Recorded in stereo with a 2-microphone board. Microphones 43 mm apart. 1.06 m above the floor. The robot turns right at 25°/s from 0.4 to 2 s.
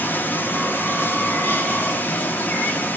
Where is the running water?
75° left, 0.7 m; by 3.0 s 115° left, 0.7 m.